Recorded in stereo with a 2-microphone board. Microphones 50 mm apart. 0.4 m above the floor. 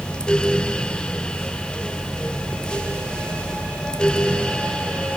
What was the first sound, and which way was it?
Only background noise.